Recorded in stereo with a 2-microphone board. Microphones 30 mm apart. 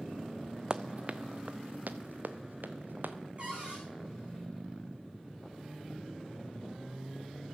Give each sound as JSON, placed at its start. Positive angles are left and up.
{"t": 0.7, "sound": "running footsteps", "side_deg": -25, "distance_m": 0.5}
{"t": 3.4, "sound": "a cupboard door", "side_deg": -35, "distance_m": 4.5}